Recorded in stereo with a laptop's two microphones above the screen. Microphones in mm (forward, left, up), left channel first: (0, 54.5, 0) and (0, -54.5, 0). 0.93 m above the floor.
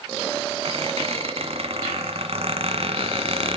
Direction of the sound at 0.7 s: 65° right (ahead or behind).